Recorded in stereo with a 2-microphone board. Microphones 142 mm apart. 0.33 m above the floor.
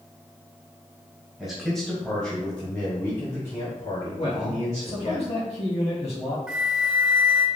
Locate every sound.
1.4 s a man speaking: centre (ahead or behind), 1.2 m; by 5.2 s 60° left (ahead or behind), 2.5 m
4.2 s a man speaking: 50° left (ahead or behind), 1.7 m
6.5 s a flute: 5° right (ahead or behind), 0.7 m